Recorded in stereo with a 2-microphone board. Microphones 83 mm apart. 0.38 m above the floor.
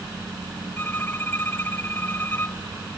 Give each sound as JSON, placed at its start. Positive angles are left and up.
{"t": 0.8, "sound": "a violin", "side_deg": 25}